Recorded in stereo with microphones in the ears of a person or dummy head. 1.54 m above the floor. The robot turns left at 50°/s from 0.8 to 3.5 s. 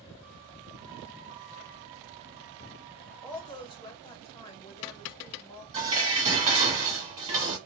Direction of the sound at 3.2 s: 10° left (ahead or behind).